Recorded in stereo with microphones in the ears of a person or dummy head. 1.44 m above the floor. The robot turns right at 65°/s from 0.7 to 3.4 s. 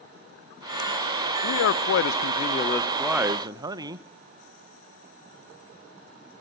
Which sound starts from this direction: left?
A man speaking, at 1.4 s.